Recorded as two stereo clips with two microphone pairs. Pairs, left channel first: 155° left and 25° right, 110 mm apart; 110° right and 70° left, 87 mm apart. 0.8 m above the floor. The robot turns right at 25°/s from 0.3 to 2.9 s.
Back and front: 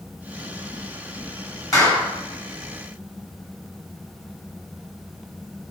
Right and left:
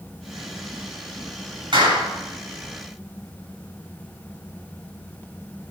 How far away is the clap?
About 6 m.